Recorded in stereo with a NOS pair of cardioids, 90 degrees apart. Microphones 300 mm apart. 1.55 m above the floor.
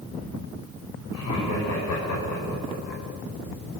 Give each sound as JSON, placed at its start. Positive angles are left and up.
{"t": 1.1, "sound": "laughter", "azimuth_deg": 60, "distance_m": 7.5}